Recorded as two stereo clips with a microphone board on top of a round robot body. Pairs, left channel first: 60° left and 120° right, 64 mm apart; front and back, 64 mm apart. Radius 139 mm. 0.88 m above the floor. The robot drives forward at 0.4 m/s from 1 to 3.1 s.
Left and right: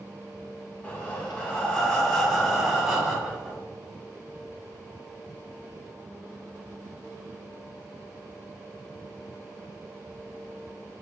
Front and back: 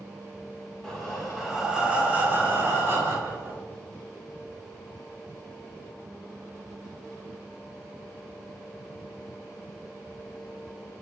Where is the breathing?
75° left, 0.9 m; by 3.6 s 160° left, 1.2 m.